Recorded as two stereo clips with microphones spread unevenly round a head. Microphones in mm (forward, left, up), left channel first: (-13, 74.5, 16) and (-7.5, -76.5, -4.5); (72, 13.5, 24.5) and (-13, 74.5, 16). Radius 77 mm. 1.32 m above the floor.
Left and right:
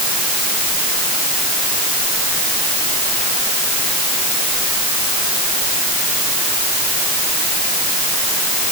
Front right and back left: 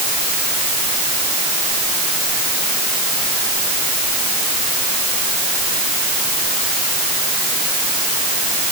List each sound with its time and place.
Only background noise.